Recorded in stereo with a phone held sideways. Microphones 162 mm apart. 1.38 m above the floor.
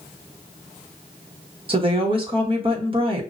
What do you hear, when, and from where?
1.7 s a woman speaking: 35° right (ahead or behind), 1.2 m